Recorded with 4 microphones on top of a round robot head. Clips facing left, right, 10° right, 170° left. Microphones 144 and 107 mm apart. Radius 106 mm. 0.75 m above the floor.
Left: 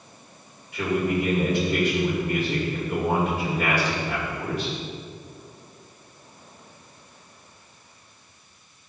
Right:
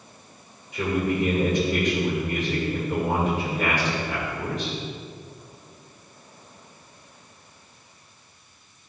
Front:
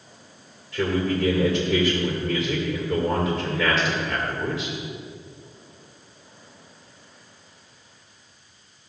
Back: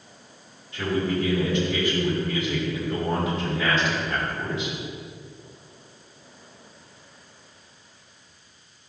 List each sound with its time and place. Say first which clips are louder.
0.7 s a man speaking: even, front 2 dB; 15° right, 2 m